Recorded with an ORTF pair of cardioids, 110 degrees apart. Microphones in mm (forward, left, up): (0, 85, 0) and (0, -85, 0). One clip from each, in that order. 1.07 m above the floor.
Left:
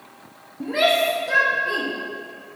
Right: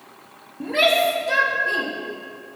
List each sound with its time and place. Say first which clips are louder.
0.6 s a shout: right 1 dB; 5° right, 1.9 m; by 1.9 s straight ahead, 3 m